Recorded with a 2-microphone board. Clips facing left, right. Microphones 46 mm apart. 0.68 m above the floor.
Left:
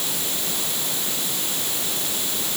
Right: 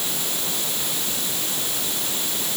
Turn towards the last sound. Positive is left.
No sound to turn to.